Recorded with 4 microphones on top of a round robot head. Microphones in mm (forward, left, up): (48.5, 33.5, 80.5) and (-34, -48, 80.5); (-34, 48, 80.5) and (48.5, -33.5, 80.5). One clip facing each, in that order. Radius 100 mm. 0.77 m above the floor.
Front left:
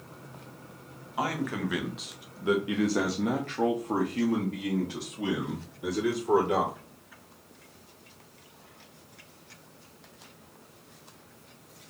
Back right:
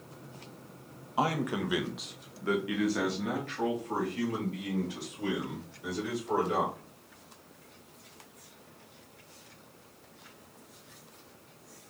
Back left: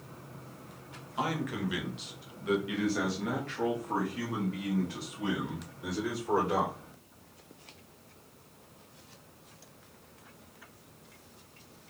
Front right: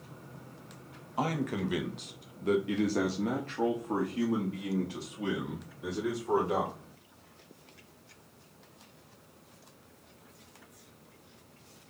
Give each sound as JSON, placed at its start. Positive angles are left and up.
{"t": 1.2, "sound": "a man speaking", "azimuth_deg": -80, "distance_m": 0.9}